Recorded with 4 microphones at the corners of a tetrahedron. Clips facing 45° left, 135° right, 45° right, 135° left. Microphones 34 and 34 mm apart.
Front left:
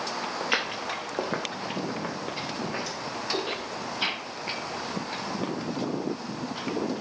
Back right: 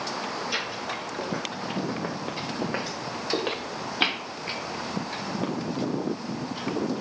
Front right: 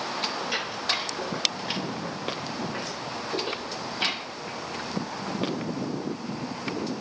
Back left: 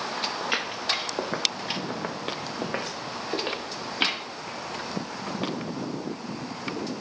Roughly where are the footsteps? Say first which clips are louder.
Front left 2 dB, back left 1 dB; left.